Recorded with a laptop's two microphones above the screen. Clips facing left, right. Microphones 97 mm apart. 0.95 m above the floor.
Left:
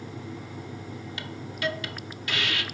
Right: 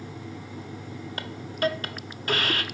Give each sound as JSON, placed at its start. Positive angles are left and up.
{"t": 1.2, "sound": "a hiss", "side_deg": -45, "distance_m": 0.5}